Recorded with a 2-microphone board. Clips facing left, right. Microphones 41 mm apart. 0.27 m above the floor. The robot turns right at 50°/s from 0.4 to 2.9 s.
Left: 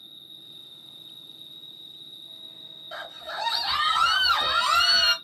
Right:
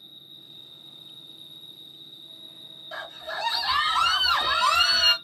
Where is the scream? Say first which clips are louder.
Right 1 dB; 5° left (ahead or behind), 1.1 m.